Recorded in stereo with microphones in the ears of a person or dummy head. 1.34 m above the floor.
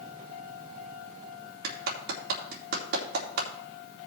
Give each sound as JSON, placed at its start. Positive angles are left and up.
{"t": 1.6, "sound": "a clap", "side_deg": -60, "distance_m": 2.5}